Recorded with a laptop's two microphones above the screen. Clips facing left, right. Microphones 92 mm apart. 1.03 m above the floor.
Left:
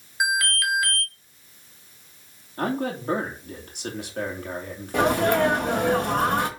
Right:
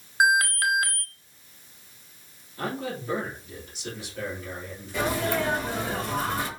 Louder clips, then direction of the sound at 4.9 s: Left 6 dB; 65° left (ahead or behind).